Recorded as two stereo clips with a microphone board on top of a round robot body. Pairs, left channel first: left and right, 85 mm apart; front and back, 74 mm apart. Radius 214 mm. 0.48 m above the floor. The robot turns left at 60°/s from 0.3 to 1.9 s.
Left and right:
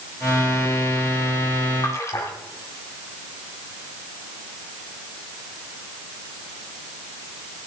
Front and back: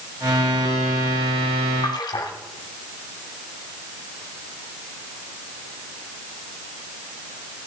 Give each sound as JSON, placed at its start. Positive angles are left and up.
{"t": 1.8, "sound": "a splash", "azimuth_deg": 35, "distance_m": 1.3}